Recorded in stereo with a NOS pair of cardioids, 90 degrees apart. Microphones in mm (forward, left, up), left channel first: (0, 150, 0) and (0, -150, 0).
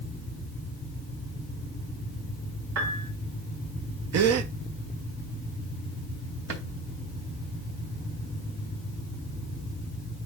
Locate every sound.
2.8 s a piano: 65° right, 3.5 m
4.1 s a gasp: 65° right, 1.0 m
6.5 s a drawer: 60° right, 3 m